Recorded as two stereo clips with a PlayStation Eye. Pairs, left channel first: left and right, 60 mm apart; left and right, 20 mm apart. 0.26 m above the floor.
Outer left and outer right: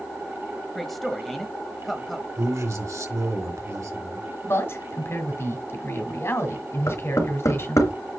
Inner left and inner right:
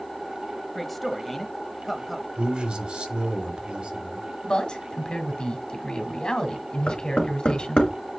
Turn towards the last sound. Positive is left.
turn(degrees=70)  # may be behind; listen again after turning